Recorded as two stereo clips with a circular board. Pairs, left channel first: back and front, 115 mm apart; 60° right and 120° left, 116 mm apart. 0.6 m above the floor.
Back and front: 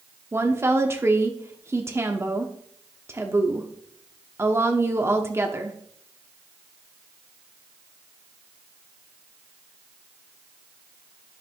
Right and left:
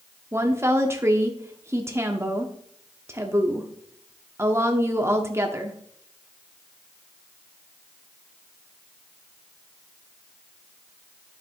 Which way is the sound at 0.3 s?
60° left.